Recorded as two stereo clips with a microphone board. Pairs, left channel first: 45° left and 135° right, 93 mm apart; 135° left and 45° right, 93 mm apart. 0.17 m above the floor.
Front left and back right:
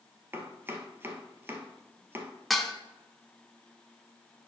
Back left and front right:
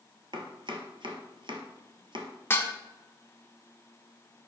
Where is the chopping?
70° right, 1.1 m.